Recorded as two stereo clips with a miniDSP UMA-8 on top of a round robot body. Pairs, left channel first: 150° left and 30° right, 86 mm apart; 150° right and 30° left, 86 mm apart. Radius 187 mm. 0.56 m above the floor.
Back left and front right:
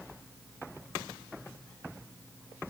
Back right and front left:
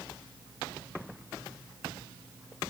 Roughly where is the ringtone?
No ringtone in this recording.